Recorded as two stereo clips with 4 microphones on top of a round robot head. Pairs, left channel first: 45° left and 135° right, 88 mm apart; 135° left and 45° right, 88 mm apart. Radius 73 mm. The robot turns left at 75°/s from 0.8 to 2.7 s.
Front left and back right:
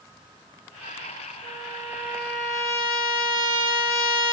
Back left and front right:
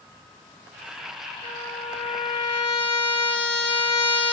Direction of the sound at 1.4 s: 165° right.